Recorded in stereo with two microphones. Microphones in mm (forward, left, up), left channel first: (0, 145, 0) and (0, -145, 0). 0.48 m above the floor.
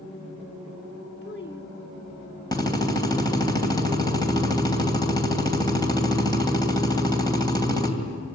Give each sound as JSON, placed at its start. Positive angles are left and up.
{"t": 1.2, "sound": "a child speaking", "side_deg": 35, "distance_m": 1.0}
{"t": 2.5, "sound": "a drill", "side_deg": 10, "distance_m": 2.5}